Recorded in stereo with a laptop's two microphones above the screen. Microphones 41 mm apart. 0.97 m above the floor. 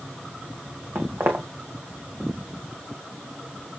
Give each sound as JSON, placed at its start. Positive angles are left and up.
{"t": 0.9, "sound": "footsteps", "side_deg": -65, "distance_m": 2.5}